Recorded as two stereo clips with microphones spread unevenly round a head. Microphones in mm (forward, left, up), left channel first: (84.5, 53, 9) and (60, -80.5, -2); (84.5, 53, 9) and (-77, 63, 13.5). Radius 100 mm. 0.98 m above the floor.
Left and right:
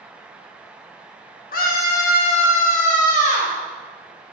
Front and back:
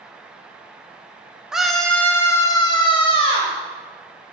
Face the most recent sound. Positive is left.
turn(degrees=45)